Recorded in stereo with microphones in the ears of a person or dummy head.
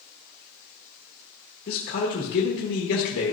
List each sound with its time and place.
1.7 s a man speaking: 50° left (ahead or behind), 1.6 m